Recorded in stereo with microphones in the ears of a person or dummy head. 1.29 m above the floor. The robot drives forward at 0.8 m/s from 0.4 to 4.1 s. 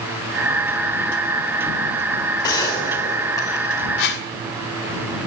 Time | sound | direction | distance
2.4 | a gunshot | 20° left (ahead or behind) | 3.5 m
4.0 | a whoosh | 65° left (ahead or behind) | 1.7 m